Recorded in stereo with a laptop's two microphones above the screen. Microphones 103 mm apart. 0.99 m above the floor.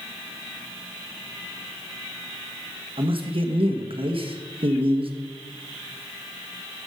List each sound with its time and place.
3.0 s a man speaking: 60° right (ahead or behind), 1.3 m